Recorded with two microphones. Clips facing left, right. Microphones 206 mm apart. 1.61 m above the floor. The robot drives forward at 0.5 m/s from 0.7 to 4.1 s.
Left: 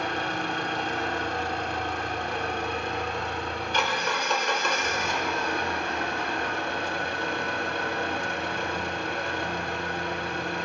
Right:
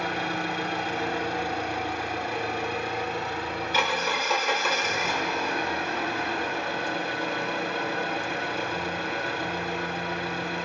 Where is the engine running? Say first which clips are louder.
Right 1 dB; 10° right (ahead or behind), 1.2 m; by 10.7 s 5° right (ahead or behind), 1.7 m.